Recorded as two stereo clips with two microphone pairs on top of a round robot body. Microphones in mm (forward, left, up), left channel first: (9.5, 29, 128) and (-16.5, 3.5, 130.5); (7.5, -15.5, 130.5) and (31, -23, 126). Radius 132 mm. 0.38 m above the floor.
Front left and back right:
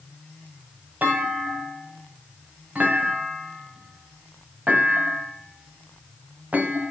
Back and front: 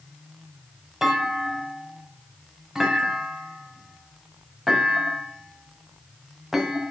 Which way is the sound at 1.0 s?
90° right.